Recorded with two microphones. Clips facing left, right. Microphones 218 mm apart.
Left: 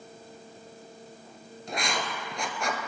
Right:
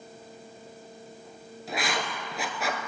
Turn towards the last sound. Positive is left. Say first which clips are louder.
# right 1 dB
turn(degrees=-5)  # may be behind; listen again after turning